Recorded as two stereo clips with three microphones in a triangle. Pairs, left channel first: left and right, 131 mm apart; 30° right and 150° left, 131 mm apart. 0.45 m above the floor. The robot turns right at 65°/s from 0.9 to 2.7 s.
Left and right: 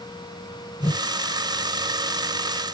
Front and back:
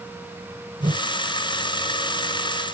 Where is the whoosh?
125° left, 1.8 m; by 1.0 s 135° left, 1.8 m.